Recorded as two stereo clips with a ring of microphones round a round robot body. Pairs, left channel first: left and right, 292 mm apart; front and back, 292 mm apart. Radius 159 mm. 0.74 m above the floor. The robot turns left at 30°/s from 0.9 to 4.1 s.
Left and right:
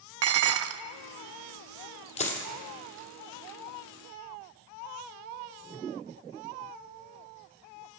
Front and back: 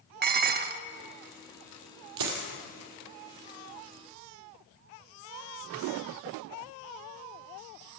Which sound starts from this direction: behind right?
Dishes clattering, at 0.2 s.